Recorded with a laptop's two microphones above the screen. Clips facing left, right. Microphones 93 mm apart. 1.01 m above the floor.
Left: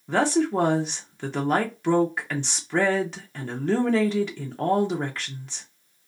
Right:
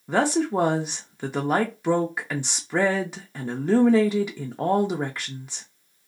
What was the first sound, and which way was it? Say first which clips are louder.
A woman speaking: even; 10° right (ahead or behind).